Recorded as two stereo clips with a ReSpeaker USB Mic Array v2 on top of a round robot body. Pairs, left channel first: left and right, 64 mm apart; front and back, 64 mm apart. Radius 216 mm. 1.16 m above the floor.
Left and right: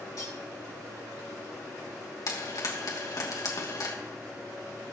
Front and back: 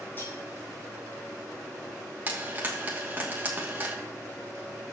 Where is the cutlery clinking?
60° left, 5 m.